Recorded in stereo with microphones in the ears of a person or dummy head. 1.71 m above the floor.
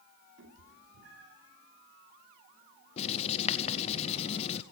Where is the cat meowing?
70° right (ahead or behind), 2.5 m.